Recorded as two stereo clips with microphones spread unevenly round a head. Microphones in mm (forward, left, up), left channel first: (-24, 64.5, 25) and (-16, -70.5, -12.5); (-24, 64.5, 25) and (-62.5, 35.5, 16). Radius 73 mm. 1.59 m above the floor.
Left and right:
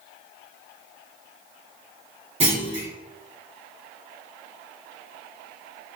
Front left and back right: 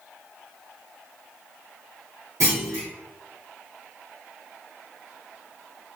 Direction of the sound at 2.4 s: 135° right.